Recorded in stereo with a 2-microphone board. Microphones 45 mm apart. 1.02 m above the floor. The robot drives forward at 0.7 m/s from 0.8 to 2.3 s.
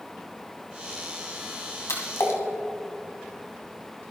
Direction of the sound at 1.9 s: 75° left (ahead or behind).